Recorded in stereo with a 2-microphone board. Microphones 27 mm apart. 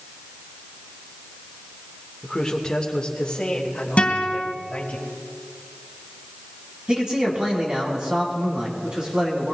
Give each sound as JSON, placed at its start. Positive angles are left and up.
{"t": 2.2, "sound": "a man speaking", "side_deg": 15, "distance_m": 1.4}
{"t": 4.0, "sound": "a guitar", "side_deg": 60, "distance_m": 2.5}
{"t": 6.9, "sound": "a man speaking", "side_deg": -30, "distance_m": 3.5}